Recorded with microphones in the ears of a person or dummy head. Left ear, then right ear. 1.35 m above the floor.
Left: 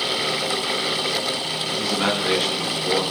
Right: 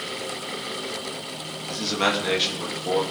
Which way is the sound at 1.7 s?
15° right (ahead or behind).